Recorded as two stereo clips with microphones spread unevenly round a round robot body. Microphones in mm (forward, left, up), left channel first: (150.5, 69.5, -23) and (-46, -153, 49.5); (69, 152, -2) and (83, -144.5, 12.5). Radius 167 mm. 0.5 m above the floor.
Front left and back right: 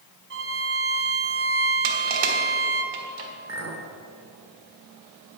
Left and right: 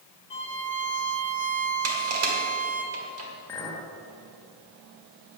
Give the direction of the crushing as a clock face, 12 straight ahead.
4 o'clock.